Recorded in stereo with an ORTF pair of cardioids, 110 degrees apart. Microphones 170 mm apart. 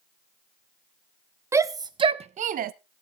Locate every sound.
1.5 s a shout: 15° right, 1.1 m; by 2.7 s 60° right, 0.8 m